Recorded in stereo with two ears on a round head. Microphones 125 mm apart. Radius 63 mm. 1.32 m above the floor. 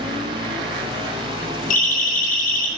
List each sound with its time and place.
1.7 s a siren: 65° left (ahead or behind), 10 m